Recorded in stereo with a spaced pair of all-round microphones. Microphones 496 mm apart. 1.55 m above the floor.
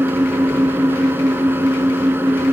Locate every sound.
0.0 s an engine running: 5° right (ahead or behind)